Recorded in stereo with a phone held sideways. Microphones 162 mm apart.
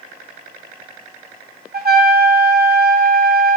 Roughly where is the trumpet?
Right.